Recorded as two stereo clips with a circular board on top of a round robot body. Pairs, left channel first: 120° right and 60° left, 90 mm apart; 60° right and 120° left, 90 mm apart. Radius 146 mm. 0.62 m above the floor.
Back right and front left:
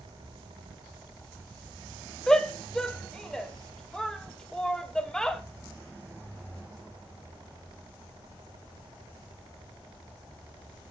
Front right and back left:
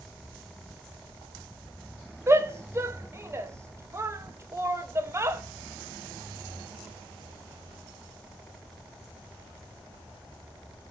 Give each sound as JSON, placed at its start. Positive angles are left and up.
{"t": 2.3, "sound": "a shout", "azimuth_deg": 160, "distance_m": 0.9}